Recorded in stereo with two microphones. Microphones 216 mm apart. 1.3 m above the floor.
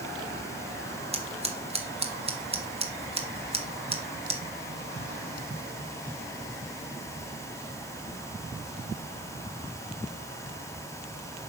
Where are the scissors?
25° right (ahead or behind), 1.0 m.